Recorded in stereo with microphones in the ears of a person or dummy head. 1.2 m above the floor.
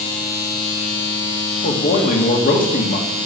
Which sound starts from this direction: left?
A man speaking, at 1.6 s.